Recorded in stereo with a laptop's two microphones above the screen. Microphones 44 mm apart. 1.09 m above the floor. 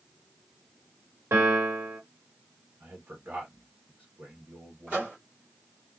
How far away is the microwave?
About 1.4 m.